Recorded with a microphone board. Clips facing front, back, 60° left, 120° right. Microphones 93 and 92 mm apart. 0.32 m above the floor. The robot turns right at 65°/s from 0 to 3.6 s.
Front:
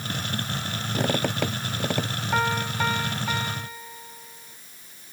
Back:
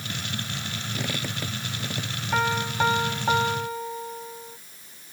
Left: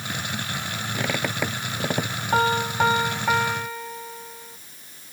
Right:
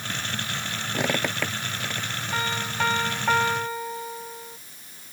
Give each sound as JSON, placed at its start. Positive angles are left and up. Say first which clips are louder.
{"t": 0.9, "sound": "a squeak", "louder": "front 9 dB, right 1 dB", "azimuth_deg": -50}
{"t": 2.3, "sound": "a piano", "louder": "back 1 dB, left 8 dB", "azimuth_deg": 85}